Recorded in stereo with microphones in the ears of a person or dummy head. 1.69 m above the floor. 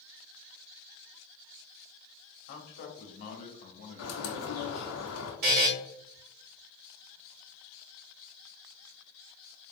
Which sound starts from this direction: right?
A buzzer, at 5.4 s.